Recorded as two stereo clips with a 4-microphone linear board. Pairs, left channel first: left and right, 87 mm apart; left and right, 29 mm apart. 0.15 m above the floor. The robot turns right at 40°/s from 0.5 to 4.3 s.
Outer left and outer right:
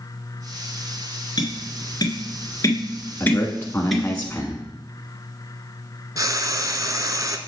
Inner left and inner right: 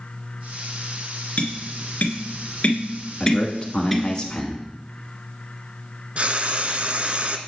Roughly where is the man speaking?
Left.